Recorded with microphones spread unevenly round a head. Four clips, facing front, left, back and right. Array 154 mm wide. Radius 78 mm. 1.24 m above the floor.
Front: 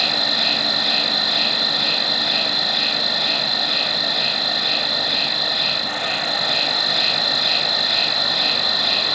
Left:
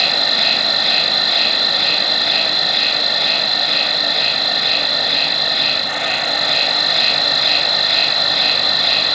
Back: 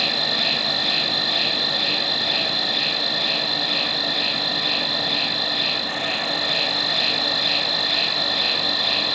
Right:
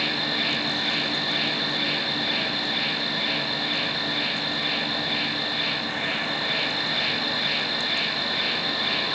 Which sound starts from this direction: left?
An insect, at 0.0 s.